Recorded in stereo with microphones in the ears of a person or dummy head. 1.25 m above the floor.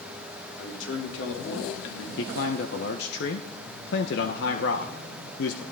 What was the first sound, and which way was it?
A man speaking, 60° left (ahead or behind).